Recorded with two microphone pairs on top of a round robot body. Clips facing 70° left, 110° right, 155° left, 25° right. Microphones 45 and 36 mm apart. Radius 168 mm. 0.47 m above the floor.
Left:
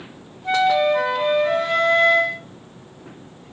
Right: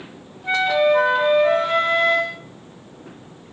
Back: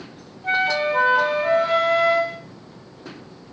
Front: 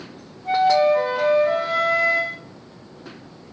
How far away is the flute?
About 1.4 m.